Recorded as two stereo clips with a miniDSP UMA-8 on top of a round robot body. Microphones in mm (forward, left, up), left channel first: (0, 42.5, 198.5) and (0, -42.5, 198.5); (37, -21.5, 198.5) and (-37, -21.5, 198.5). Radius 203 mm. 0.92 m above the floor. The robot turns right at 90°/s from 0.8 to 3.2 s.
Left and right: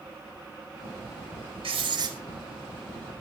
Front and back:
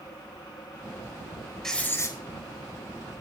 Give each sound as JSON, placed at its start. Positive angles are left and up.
{"t": 1.6, "sound": "writing", "azimuth_deg": -85, "distance_m": 5.0}